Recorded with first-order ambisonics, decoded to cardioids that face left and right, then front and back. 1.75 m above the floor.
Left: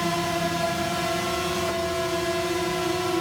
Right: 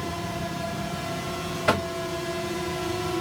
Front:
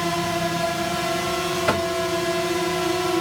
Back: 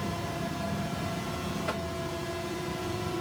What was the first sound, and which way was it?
A drone, 30° left.